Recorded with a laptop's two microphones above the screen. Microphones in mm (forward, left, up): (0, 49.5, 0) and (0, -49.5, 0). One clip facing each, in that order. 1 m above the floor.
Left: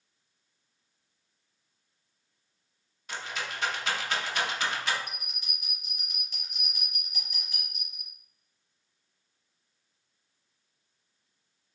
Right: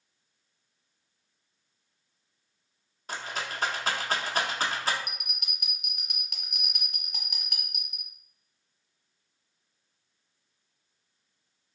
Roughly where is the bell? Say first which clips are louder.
Even; right.